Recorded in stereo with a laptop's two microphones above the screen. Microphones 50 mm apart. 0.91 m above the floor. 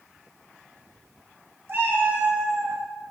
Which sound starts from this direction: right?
A cat meowing, at 1.7 s.